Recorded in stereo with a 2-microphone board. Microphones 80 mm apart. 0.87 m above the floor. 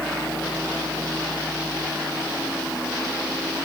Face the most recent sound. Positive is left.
No sound to turn to.